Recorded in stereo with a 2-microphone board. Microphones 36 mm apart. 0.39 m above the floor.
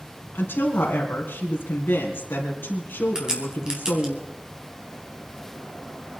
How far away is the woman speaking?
About 3.5 m.